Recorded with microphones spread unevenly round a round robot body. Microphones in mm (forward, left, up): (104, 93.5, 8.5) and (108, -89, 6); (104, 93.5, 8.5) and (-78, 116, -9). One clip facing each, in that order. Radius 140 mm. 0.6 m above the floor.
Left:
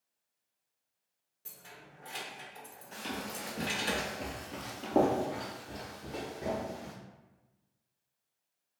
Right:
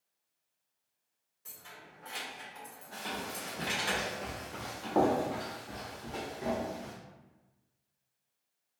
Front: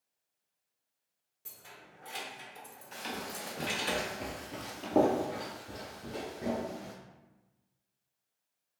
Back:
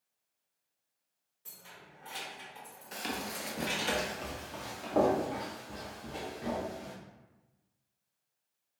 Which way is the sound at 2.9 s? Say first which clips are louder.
Left 1 dB, back 2 dB; 145° left.